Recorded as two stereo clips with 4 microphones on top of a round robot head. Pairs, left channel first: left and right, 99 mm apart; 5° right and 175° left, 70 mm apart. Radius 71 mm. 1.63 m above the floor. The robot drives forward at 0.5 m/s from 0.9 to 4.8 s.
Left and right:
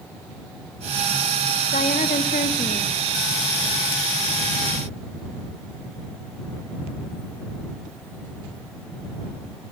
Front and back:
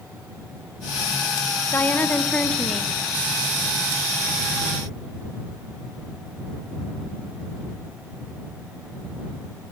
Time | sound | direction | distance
1.7 | a woman speaking | 55° left | 1.5 m